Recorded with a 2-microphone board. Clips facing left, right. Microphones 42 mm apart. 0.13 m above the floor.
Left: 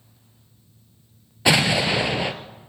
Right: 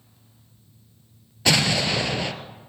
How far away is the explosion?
About 1.8 m.